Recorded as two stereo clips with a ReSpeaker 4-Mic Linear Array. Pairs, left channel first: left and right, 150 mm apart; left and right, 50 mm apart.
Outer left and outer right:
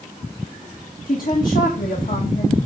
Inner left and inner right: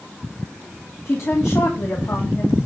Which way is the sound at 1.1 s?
70° left (ahead or behind).